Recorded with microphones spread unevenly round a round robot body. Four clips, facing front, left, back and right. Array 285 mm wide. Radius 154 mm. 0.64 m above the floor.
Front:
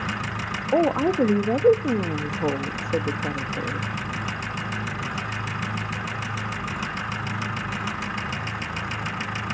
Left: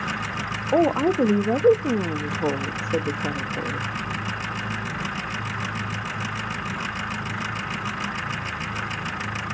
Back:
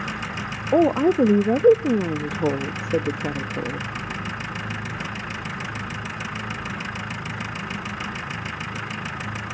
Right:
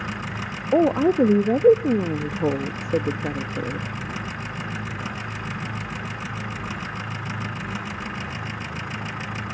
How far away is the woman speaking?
About 0.6 m.